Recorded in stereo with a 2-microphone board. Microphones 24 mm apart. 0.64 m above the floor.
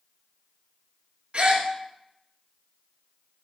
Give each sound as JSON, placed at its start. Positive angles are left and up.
{"t": 1.3, "sound": "a gasp", "side_deg": -55, "distance_m": 1.1}